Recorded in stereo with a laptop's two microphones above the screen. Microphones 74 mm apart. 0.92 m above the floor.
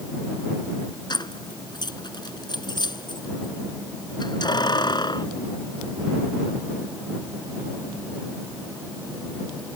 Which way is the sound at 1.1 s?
80° left.